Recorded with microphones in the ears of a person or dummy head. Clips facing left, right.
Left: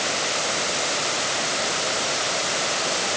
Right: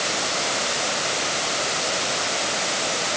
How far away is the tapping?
I don't hear tapping.